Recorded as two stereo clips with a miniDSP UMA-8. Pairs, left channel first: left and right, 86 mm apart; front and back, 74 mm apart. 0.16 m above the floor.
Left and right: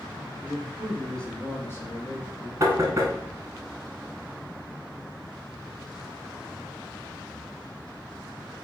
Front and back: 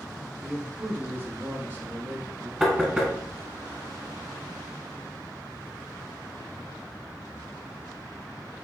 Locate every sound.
0.4 s a man speaking: 125° right, 1.0 m; by 2.5 s 125° left, 1.7 m
2.6 s knocking: 95° right, 1.2 m